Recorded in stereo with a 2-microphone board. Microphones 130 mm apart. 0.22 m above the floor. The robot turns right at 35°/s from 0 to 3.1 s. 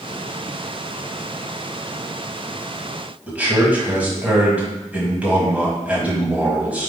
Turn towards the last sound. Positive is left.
turn(degrees=-10)  # may be behind; listen again after turning